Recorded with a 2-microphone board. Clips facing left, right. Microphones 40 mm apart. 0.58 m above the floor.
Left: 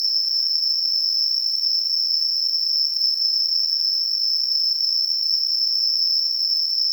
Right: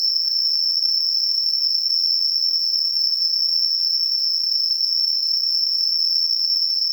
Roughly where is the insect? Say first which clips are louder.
Right 1 dB; centre.